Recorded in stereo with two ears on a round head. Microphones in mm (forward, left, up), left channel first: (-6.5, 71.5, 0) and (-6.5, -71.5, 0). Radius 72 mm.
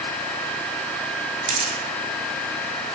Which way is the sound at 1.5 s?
45° right (ahead or behind).